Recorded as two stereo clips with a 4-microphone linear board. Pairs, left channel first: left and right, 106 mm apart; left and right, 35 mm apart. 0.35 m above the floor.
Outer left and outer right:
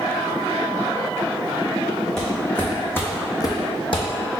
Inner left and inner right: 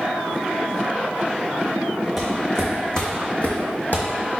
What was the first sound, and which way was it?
Footsteps, 5° left (ahead or behind).